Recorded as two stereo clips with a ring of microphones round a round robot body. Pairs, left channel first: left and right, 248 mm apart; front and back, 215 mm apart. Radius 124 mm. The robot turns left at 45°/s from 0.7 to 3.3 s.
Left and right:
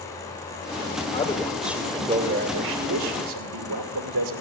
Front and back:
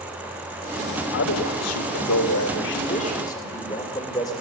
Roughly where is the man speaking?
Ahead.